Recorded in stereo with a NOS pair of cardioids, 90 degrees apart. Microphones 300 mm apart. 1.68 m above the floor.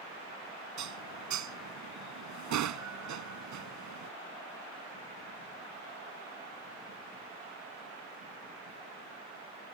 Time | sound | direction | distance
0.8 | dishes clattering | 70° right | ?